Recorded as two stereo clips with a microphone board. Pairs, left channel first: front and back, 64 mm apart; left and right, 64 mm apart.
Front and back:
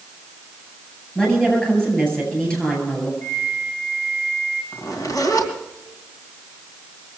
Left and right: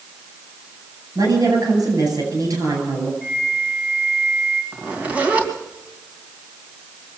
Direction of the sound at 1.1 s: 75° right.